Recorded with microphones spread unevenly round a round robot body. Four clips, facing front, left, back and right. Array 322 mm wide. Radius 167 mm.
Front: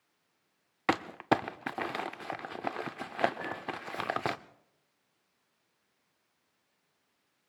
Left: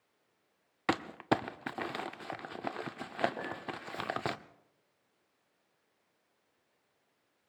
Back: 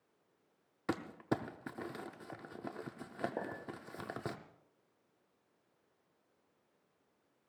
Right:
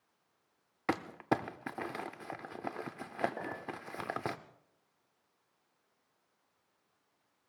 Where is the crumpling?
Straight ahead, 0.6 m.